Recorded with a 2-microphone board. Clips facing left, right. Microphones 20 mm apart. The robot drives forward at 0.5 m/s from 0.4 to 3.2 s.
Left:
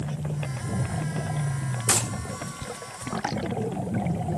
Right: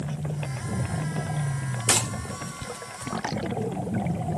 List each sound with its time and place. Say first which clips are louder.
1.9 s a gunshot: right 2 dB; 50° right (ahead or behind), 1.5 m